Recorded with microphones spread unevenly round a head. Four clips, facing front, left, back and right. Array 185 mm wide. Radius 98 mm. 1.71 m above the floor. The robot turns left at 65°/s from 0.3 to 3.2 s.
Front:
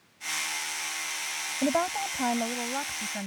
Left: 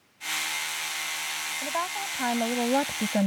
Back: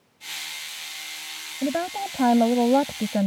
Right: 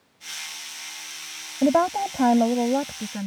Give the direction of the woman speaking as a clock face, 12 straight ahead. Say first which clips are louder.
Right 13 dB, back 1 dB; 3 o'clock.